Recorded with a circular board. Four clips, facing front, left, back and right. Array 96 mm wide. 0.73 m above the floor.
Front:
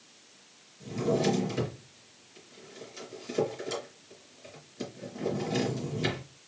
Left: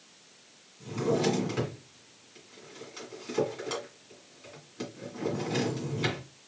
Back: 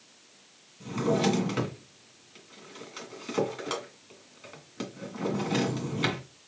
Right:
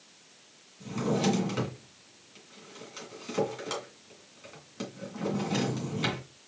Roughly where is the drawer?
Behind.